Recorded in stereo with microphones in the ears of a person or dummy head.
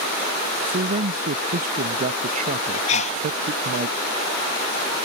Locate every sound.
0.7 s a man speaking: 40° right (ahead or behind)
2.9 s a sneeze: 30° left (ahead or behind)